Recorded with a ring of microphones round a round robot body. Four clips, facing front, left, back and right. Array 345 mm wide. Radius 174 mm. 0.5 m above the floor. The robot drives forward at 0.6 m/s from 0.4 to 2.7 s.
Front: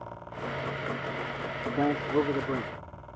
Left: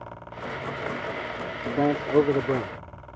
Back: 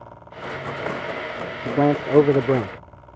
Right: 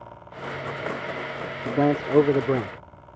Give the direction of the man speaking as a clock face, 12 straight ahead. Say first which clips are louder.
Right 2 dB, back 9 dB; 5 o'clock.